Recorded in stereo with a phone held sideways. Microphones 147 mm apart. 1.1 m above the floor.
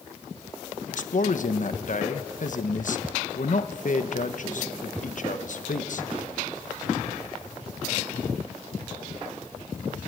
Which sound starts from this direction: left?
A man speaking, at 0.9 s.